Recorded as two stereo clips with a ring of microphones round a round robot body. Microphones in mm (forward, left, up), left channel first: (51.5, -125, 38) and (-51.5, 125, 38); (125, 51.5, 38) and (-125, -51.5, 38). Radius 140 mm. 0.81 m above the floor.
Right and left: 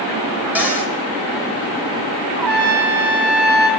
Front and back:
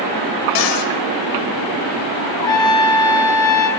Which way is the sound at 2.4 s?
100° left.